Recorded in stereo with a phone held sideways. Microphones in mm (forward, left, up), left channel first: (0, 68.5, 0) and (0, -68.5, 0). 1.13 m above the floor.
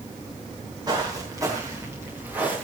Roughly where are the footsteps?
Right.